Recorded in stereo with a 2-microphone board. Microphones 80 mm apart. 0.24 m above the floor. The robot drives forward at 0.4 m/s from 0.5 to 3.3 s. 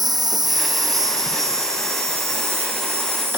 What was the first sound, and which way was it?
An insect, 60° right (ahead or behind).